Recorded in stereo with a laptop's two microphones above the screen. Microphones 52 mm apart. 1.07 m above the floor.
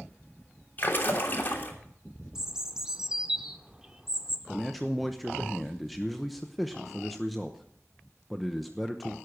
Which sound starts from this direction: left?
A splash, at 0.8 s.